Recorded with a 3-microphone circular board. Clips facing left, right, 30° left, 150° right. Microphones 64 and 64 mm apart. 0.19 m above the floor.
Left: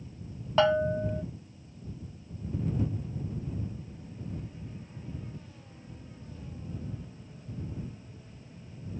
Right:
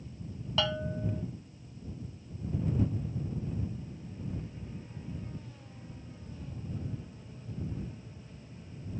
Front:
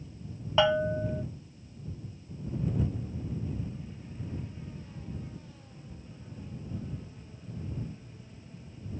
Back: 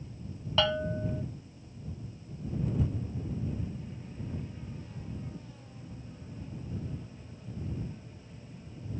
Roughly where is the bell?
Left.